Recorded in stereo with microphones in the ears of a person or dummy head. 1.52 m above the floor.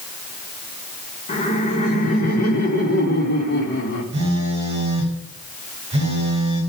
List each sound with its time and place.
1.3 s laughter: 35° left (ahead or behind), 4 m; by 4.0 s 60° left (ahead or behind), 4 m
4.1 s a phone buzzing: 35° right (ahead or behind), 4.5 m